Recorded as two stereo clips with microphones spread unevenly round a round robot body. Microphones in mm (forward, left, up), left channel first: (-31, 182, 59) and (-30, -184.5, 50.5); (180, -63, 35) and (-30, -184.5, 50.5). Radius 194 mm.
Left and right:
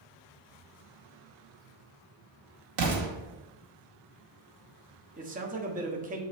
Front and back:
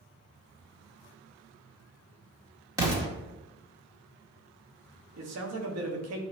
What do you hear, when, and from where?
2.8 s an explosion: 70° right, 2.0 m
5.2 s a man speaking: 160° right, 1.3 m